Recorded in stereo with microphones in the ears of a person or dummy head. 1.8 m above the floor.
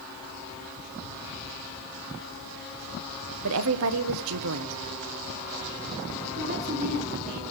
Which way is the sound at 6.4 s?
45° right (ahead or behind).